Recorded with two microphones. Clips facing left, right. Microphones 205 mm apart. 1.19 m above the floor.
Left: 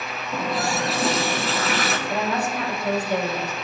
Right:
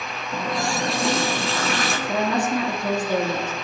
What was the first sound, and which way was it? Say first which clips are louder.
A running tap: left 1 dB; centre (ahead or behind).